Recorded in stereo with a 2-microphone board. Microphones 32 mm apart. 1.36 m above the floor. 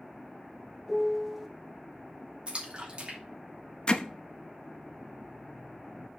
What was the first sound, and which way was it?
A piano, 5° right (ahead or behind).